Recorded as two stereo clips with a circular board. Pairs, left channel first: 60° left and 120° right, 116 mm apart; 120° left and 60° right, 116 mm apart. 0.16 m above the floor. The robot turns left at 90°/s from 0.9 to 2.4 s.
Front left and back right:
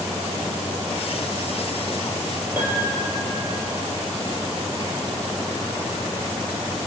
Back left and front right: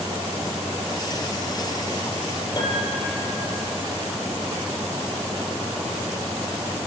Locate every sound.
2.6 s a piano: 170° left, 5.5 m